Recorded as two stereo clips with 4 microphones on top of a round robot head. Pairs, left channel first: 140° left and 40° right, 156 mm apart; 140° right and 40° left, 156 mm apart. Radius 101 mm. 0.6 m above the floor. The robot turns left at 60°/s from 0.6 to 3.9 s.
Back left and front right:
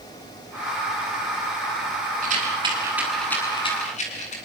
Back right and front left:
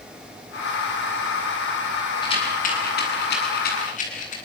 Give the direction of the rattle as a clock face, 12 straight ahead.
3 o'clock.